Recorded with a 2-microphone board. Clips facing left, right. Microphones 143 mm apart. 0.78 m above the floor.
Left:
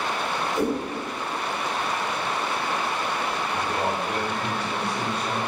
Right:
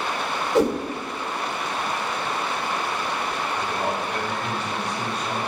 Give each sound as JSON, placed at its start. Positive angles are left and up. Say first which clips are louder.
{"t": 0.6, "sound": "a whoosh", "louder": "right 6 dB", "side_deg": -80, "distance_m": 1.2}
{"t": 3.5, "sound": "a man speaking", "louder": "even", "side_deg": 40, "distance_m": 2.5}